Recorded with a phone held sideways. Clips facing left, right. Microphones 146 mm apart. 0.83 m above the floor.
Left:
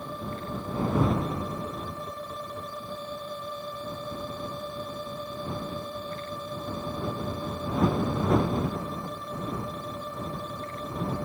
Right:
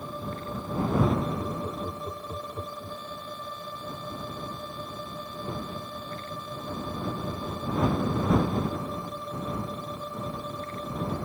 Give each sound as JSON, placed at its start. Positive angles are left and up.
{"t": 1.4, "sound": "laughter", "side_deg": -45}